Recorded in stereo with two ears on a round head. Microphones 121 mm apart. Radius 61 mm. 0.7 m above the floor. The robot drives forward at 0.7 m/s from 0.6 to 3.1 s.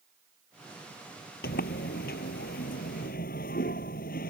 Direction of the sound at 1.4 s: 80° left.